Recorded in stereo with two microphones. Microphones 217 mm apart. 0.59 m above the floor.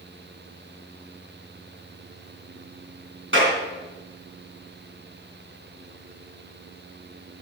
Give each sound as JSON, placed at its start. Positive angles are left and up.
{"t": 3.3, "sound": "a clap", "side_deg": -65, "distance_m": 6.0}